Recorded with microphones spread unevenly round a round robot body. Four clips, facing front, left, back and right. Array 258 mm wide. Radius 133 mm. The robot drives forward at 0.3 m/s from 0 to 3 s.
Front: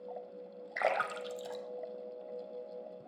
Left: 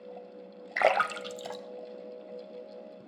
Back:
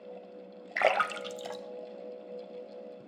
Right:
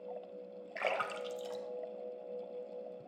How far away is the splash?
About 1.0 m.